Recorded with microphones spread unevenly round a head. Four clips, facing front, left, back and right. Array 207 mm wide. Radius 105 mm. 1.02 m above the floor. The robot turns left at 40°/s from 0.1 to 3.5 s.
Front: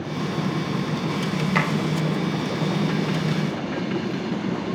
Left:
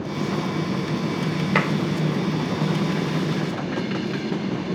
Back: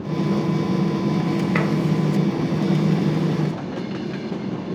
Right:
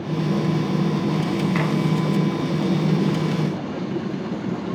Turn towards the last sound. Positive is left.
turn(degrees=50)